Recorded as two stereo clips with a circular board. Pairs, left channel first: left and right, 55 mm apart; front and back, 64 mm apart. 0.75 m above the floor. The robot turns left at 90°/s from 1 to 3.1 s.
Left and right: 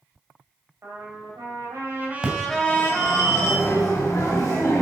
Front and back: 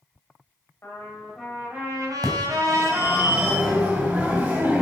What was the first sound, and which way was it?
A trumpet, 50° right.